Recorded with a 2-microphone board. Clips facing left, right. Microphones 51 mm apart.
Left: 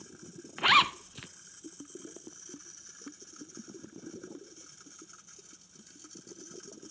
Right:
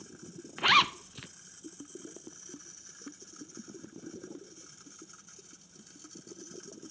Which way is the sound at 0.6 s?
5° left (ahead or behind).